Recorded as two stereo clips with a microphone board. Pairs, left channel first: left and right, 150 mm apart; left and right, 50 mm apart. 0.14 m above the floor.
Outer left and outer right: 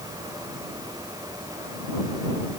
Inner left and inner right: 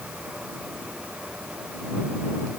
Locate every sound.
Only background noise.